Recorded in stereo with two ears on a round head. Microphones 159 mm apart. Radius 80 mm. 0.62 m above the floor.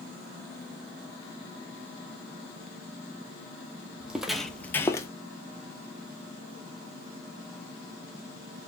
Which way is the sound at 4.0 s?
5° right (ahead or behind).